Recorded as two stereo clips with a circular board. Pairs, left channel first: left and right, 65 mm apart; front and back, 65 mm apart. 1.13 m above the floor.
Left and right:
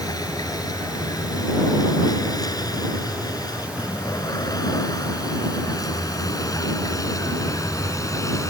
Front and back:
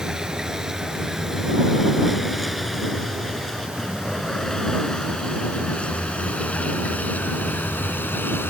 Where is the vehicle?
100° left; by 8.5 s 55° left.